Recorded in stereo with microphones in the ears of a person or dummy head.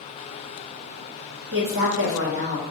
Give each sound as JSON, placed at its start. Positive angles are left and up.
{"t": 1.5, "sound": "a woman speaking", "side_deg": -55, "distance_m": 1.2}